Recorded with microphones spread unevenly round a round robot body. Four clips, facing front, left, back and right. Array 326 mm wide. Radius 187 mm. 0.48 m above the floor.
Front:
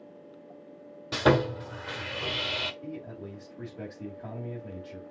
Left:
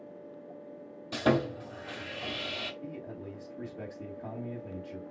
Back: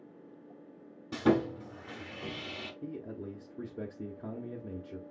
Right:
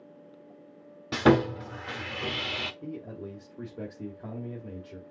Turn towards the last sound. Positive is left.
turn(degrees=-150)